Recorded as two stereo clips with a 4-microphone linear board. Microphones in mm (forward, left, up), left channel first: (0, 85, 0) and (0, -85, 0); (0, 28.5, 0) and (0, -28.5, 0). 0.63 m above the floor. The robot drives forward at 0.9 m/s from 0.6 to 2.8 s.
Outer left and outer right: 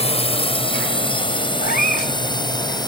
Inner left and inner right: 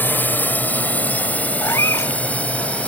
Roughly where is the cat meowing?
Left.